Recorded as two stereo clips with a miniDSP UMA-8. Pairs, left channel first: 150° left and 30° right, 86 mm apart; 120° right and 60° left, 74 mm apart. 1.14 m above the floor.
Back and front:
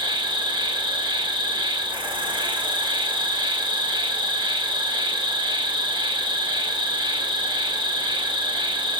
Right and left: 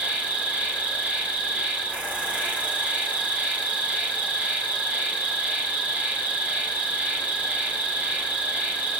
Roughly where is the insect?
Ahead.